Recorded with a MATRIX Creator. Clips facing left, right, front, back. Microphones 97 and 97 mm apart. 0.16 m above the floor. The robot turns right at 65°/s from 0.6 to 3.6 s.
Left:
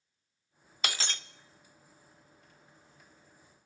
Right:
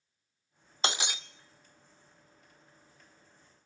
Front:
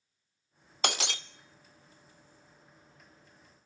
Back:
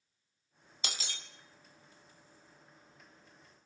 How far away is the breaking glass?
About 0.6 m.